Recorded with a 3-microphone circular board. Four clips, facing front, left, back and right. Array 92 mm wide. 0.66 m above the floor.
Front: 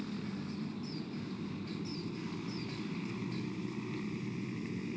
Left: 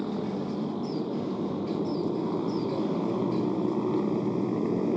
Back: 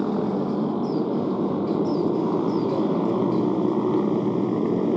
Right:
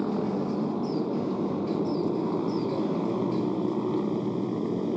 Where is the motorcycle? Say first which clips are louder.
Right 3 dB, back 17 dB; 170° right; by 5.0 s 170° left.